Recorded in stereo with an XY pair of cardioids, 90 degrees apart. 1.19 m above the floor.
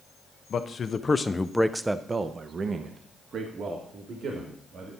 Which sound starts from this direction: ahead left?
A man speaking, at 0.5 s.